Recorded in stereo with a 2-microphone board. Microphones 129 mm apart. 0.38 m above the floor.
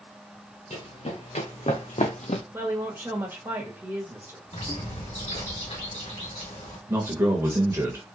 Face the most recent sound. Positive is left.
turn(degrees=-20)  # may be behind; listen again after turning